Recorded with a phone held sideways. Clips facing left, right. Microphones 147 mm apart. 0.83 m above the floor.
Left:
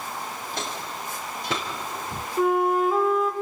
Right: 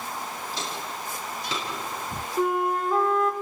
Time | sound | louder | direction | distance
0.5 | footsteps | left 2 dB | 55° left (ahead or behind) | 6 m
2.4 | a flute | left 4 dB | 5° left (ahead or behind) | 2.5 m